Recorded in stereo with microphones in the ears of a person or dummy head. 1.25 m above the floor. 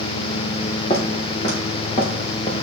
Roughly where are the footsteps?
Left.